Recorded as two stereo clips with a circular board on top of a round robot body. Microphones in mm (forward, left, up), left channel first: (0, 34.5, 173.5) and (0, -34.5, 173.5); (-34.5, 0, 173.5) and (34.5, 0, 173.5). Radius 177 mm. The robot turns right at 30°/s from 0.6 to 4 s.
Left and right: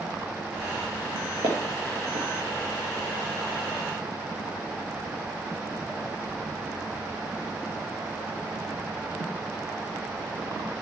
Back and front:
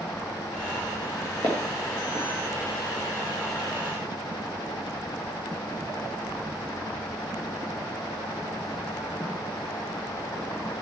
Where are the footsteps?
115° right, 1.1 m; by 2.3 s 90° right, 1.1 m.